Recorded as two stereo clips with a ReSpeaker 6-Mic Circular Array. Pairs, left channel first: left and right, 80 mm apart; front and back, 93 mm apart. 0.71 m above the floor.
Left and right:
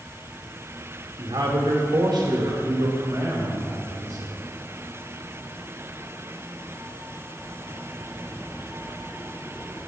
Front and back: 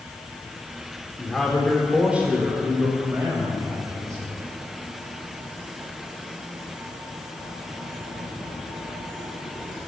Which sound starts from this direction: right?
A man speaking, at 1.2 s.